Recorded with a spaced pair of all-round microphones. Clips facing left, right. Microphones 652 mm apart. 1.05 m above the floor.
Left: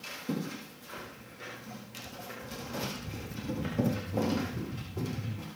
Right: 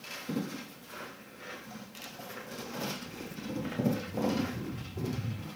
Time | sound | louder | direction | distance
1.0 | footsteps | even | 60° left (ahead or behind) | 2.5 m